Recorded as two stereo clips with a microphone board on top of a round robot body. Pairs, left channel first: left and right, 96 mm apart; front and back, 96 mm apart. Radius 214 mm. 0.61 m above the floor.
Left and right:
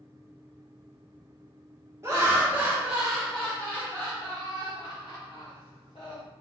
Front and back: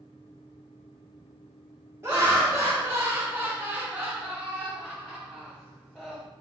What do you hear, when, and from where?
2.0 s laughter: 130° right, 1.3 m; by 6.2 s 85° left, 1.8 m